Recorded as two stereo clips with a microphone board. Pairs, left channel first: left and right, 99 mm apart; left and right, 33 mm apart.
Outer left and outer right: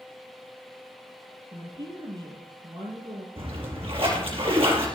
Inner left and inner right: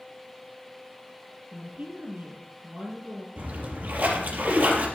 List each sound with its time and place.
1.5 s a woman speaking: 55° right (ahead or behind), 6 m
3.4 s a splash: 75° right (ahead or behind), 4.5 m